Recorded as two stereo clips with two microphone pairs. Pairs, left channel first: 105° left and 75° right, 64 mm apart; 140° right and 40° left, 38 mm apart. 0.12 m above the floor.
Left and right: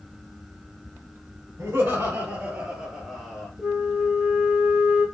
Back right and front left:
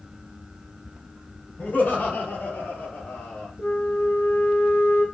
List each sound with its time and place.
1.6 s laughter: 115° right, 2 m; by 3.5 s 170° right, 3 m
3.6 s a flute: 160° right, 2 m